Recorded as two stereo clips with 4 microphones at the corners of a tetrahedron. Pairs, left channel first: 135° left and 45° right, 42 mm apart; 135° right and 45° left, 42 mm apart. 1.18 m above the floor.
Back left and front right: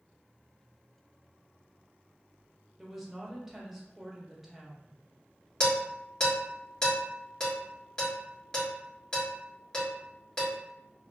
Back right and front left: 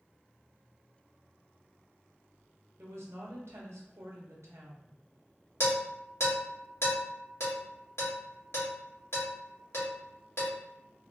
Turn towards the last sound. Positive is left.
turn(degrees=-155)